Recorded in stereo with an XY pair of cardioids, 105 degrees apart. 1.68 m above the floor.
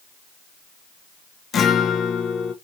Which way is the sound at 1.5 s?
50° left.